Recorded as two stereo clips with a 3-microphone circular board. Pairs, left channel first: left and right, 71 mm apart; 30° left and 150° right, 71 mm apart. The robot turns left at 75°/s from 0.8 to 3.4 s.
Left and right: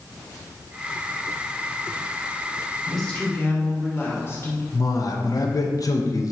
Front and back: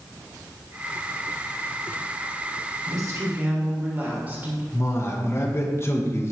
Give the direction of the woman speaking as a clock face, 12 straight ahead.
6 o'clock.